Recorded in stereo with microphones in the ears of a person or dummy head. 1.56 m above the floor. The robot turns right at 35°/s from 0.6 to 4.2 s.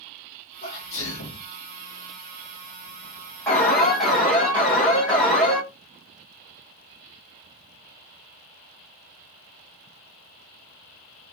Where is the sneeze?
60° left (ahead or behind), 1.5 m; by 1.5 s 75° left (ahead or behind), 1.5 m.